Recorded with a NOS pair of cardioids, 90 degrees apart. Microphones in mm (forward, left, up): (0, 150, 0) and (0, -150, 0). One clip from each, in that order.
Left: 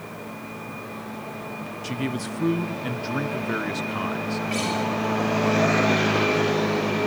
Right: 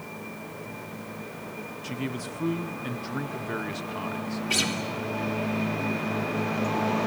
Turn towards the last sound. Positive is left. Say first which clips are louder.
# right 3 dB
turn(degrees=-65)